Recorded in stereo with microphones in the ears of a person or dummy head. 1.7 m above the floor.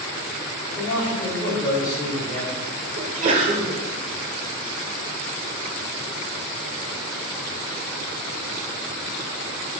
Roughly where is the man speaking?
Left.